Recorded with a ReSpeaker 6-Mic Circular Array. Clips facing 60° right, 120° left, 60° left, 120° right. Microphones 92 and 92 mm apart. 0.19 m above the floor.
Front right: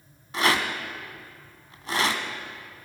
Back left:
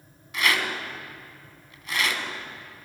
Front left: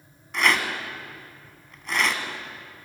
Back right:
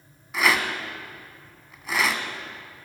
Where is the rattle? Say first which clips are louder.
Front right 2 dB, even; 40° right, 1.2 m.